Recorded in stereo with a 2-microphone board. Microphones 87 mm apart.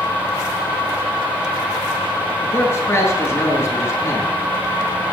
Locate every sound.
2.4 s a man speaking: 30° left (ahead or behind), 5 m